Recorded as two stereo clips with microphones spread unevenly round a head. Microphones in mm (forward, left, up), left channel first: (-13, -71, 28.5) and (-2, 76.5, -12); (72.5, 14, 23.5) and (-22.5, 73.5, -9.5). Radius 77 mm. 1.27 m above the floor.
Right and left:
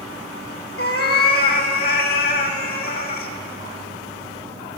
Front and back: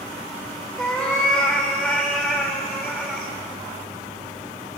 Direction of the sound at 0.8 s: 110° right.